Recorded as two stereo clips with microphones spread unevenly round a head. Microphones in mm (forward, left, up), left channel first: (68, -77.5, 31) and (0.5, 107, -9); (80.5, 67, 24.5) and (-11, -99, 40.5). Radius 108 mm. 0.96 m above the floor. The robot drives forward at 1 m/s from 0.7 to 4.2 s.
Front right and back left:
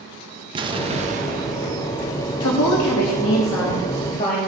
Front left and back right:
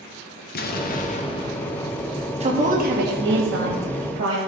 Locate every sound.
0.6 s an explosion: 60° left, 0.9 m; by 2.3 s 150° left, 1.5 m
2.4 s a woman speaking: 60° right, 1.6 m; by 4.4 s 130° right, 1.8 m